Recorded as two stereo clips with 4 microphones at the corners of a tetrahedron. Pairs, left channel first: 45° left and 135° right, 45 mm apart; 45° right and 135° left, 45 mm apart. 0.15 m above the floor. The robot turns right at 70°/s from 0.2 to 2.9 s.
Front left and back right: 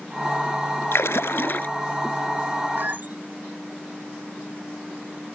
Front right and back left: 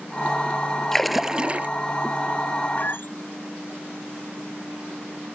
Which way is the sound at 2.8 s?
95° right.